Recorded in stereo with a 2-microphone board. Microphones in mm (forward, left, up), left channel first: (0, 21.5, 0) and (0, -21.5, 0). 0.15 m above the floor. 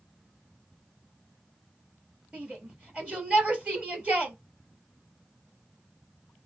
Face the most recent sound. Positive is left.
turn(degrees=-25)  # may be behind; listen again after turning